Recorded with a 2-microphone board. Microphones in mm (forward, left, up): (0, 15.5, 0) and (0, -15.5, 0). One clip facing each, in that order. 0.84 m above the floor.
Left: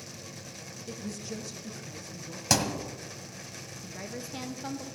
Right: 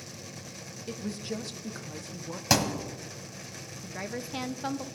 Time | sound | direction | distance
0.9 | a woman speaking | 25° right (ahead or behind) | 0.7 m
2.5 | a thud | 10° right (ahead or behind) | 1.3 m
3.8 | a woman speaking | 30° right (ahead or behind) | 0.5 m